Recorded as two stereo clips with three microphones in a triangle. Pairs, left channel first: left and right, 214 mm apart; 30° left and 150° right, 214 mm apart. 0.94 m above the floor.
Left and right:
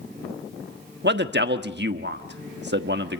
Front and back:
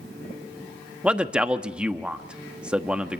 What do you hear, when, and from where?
1.0 s a man speaking: 65° right, 1.2 m